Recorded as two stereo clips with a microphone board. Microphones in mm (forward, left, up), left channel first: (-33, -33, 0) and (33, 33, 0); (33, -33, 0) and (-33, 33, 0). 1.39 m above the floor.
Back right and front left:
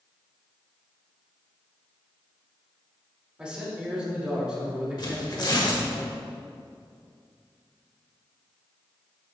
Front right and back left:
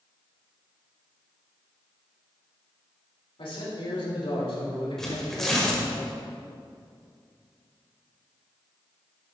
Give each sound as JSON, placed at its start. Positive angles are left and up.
{"t": 3.4, "sound": "a man speaking", "azimuth_deg": -35, "distance_m": 3.0}
{"t": 5.0, "sound": "tearing paper", "azimuth_deg": -130, "distance_m": 1.5}